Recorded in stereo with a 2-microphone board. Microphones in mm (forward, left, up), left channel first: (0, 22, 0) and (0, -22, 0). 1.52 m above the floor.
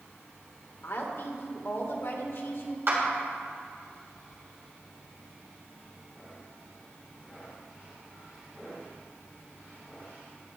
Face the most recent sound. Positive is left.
turn(degrees=-55)  # may be behind; listen again after turning